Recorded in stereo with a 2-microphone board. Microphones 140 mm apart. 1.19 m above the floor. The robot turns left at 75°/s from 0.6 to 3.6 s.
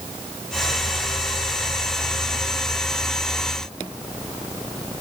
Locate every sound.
Only background noise.